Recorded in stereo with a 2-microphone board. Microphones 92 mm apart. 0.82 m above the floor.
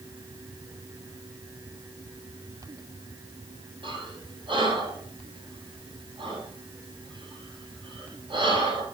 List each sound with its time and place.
3.8 s breathing: 70° right (ahead or behind), 6.5 m